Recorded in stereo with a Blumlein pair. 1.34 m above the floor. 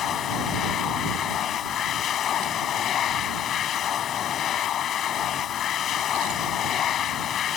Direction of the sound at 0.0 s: 30° left.